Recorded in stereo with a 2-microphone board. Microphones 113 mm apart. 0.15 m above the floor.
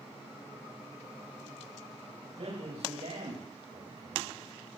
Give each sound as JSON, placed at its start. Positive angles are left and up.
{"t": 2.4, "sound": "a man speaking", "side_deg": -85, "distance_m": 10.0}